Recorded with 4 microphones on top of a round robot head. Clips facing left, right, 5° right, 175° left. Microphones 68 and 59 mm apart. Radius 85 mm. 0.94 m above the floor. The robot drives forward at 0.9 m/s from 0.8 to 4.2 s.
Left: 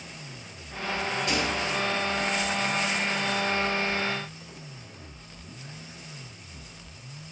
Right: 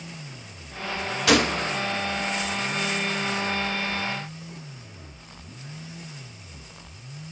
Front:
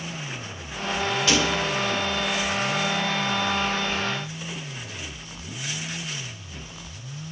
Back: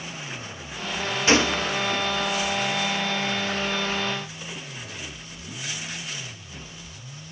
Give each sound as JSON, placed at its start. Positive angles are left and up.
{"t": 1.3, "sound": "a gunshot", "azimuth_deg": -120, "distance_m": 0.5}